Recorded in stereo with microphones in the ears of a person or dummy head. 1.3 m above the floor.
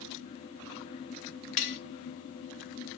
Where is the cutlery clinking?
35° left (ahead or behind), 0.5 m.